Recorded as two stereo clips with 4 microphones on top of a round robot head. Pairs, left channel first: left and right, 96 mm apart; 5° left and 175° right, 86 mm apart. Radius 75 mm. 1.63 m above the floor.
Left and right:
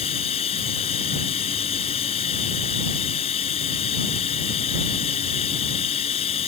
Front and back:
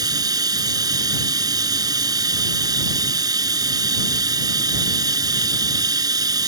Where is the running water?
140° left.